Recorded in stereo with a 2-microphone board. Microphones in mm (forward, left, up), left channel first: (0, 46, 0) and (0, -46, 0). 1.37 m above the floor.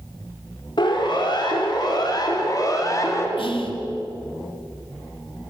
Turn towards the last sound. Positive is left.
turn(degrees=75)  # may be behind; listen again after turning